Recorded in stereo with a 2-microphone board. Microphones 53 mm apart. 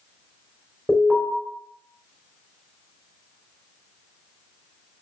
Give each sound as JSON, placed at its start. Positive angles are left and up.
{"t": 0.9, "sound": "an alarm", "side_deg": 35, "distance_m": 4.0}